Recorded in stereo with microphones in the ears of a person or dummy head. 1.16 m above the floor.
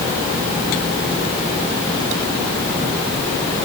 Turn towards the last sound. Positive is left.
No sound to turn to.